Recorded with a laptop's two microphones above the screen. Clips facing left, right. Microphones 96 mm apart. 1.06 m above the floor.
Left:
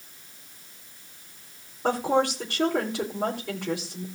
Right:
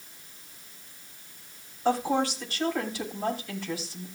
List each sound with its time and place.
1.8 s a woman speaking: 80° left, 4.5 m